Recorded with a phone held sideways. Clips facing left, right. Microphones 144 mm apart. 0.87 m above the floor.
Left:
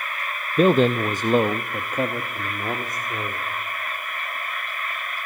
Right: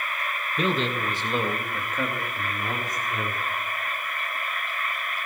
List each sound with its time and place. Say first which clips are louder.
0.6 s a man speaking: left 10 dB; 45° left (ahead or behind), 0.5 m; by 3.5 s 25° left (ahead or behind), 2 m